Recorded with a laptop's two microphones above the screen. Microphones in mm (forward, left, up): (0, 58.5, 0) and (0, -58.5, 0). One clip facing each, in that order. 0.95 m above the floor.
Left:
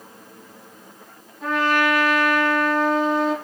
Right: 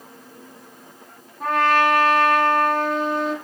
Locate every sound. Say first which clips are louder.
1.4 s a trumpet: right 2 dB; 55° right (ahead or behind), 1.4 m